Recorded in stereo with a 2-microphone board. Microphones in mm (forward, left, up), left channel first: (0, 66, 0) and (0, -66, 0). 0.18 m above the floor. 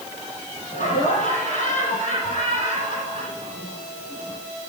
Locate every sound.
0.7 s laughter: 70° left (ahead or behind), 7.5 m